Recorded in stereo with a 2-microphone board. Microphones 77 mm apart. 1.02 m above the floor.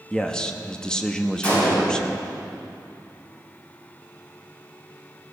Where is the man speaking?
10° left (ahead or behind), 1.0 m.